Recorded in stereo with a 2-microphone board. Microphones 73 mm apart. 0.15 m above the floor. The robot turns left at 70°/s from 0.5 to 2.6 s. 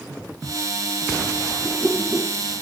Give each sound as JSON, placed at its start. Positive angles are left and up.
{"t": 1.6, "sound": "a whoosh", "azimuth_deg": 5, "distance_m": 4.5}